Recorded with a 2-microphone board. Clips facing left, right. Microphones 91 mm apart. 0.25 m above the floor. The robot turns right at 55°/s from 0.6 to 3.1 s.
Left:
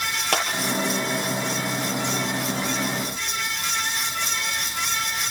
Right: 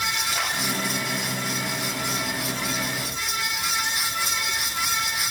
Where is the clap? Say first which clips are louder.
Left 9 dB; 80° left, 6 m.